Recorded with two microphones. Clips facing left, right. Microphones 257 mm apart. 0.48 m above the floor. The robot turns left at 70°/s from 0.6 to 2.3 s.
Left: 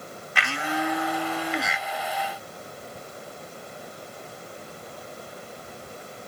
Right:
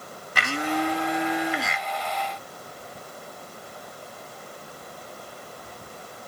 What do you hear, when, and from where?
0.3 s a blender: 110° right, 1.0 m; by 1.9 s 165° left, 1.0 m